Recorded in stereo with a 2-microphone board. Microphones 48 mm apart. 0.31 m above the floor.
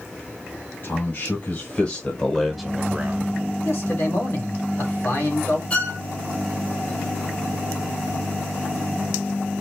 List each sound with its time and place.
0.8 s a man speaking: 50° left (ahead or behind), 2 m; by 3.3 s 40° right (ahead or behind), 1.2 m
3.6 s a man speaking: 60° left (ahead or behind), 2 m
5.7 s a violin: 25° left (ahead or behind), 1.6 m